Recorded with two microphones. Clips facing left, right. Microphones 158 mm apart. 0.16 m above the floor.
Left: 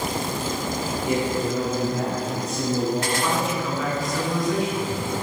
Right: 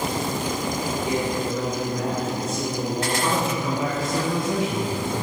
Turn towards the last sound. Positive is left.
turn(degrees=-25)  # may be behind; listen again after turning